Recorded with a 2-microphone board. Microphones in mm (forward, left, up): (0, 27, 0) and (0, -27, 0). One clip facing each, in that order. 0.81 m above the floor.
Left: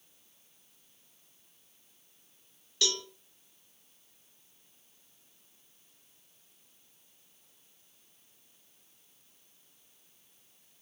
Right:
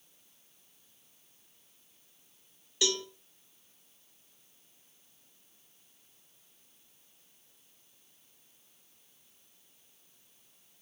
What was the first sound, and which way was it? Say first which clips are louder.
A cowbell: right 2 dB; 15° right (ahead or behind).